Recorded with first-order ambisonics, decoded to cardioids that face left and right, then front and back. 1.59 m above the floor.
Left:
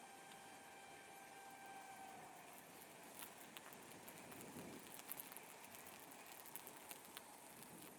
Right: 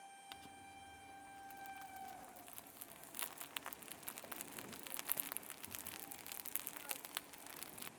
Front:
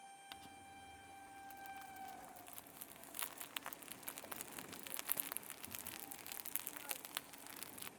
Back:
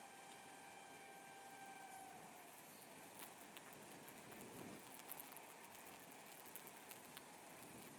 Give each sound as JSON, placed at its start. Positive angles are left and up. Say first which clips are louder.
{"t": 0.3, "sound": "crumpling", "louder": "right 4 dB, front 4 dB", "azimuth_deg": -40}